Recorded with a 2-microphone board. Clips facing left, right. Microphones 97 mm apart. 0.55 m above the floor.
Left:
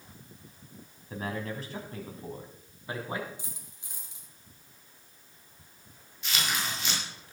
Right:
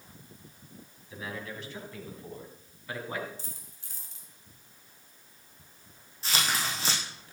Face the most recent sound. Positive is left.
turn(degrees=-35)  # may be behind; listen again after turning